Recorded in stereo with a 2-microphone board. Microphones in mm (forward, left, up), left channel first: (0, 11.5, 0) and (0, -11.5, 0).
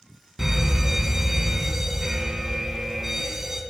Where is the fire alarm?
10° right (ahead or behind), 2.5 m.